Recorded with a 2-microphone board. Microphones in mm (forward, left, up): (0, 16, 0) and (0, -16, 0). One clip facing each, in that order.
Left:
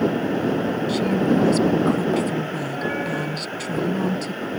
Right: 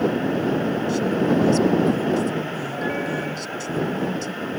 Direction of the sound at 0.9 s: 60° left (ahead or behind).